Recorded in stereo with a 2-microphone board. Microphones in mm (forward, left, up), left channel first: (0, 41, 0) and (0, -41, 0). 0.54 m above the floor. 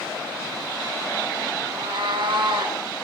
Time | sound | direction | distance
1.6 | a cat meowing | 80° right | 3 m